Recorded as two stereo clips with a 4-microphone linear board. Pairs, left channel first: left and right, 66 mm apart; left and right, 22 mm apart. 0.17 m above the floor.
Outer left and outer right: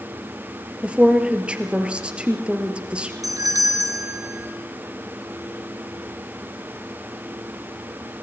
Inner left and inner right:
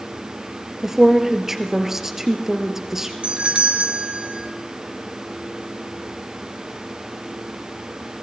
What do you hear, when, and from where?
0.8 s a woman speaking: 15° right (ahead or behind), 3.5 m
3.2 s a doorbell: 55° right (ahead or behind), 3.5 m